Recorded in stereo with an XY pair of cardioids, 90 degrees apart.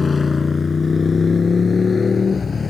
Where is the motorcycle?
35° left; by 2.7 s 40° left.